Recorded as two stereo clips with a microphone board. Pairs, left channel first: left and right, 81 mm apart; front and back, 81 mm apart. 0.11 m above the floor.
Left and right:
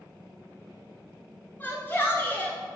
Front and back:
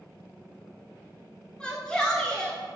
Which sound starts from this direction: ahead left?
A shout, at 1.6 s.